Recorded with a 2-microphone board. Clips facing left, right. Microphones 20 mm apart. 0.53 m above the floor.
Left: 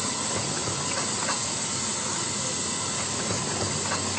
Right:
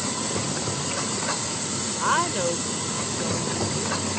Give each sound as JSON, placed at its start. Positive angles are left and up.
{"t": 2.0, "sound": "a woman speaking", "side_deg": -60}